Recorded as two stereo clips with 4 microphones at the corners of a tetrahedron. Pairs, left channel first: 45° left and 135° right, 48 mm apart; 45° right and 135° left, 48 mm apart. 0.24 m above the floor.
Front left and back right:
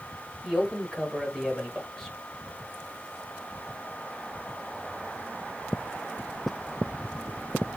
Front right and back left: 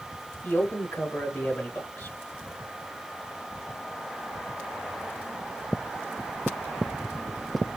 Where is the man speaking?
35° right, 1.1 m.